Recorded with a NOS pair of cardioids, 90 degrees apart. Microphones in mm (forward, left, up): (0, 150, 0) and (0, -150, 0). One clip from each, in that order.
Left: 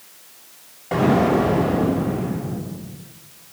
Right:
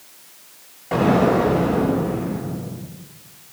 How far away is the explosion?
About 6.5 m.